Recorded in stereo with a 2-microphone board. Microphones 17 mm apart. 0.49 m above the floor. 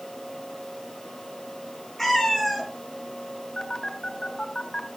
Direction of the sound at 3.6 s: 55° left (ahead or behind).